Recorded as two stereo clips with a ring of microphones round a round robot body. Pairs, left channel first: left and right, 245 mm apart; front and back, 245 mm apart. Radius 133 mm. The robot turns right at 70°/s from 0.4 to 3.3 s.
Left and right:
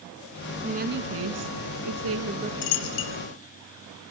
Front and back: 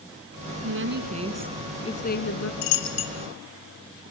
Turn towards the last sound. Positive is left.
turn(degrees=90)